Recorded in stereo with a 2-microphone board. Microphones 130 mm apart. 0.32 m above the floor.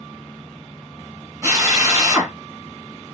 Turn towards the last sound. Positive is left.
turn(degrees=-20)  # may be behind; listen again after turning